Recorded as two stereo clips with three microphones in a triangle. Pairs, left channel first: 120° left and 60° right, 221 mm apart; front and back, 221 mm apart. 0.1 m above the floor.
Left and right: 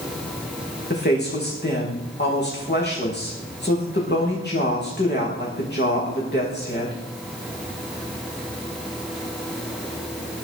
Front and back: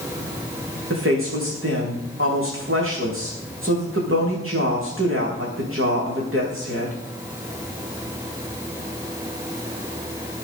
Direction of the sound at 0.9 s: 160° left.